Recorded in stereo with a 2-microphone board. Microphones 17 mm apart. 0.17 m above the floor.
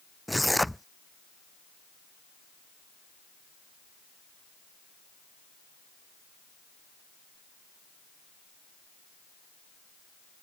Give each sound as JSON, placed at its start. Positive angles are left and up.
{"t": 0.3, "sound": "tearing paper", "side_deg": 0}